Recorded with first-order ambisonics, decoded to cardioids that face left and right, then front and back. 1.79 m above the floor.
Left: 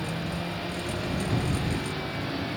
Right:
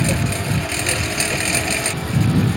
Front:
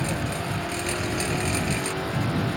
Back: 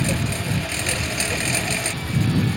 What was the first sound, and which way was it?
A lawn mower, 115° right.